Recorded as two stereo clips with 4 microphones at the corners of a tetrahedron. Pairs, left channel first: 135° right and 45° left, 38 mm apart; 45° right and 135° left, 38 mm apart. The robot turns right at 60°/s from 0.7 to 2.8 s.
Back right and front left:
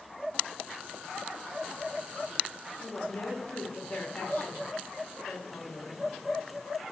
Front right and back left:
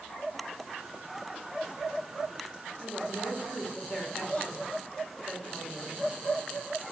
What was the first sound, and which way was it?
A woman speaking, 95° right.